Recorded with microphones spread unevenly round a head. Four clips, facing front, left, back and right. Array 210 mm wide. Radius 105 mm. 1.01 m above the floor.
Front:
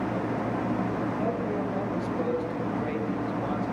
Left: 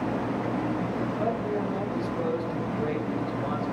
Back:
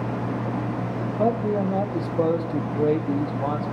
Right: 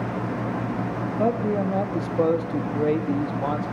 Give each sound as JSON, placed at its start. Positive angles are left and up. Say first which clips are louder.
{"t": 1.2, "sound": "a man speaking", "louder": "right 8 dB, back 6 dB", "azimuth_deg": -135, "distance_m": 2.0}